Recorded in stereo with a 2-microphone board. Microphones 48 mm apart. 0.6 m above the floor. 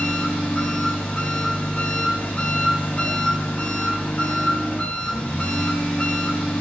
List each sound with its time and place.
0.0 s an engine running: 25° left (ahead or behind), 2.5 m